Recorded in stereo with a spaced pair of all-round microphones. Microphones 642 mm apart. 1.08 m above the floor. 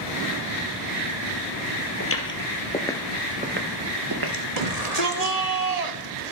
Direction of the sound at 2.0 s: 20° left (ahead or behind).